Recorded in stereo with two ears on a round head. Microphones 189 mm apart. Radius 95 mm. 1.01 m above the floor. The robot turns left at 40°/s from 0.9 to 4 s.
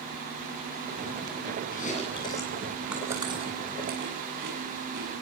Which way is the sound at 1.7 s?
40° left (ahead or behind).